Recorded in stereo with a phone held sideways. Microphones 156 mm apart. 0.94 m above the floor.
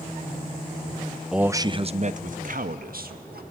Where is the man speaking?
5° right (ahead or behind), 0.6 m; by 3.4 s 70° right (ahead or behind), 1.8 m.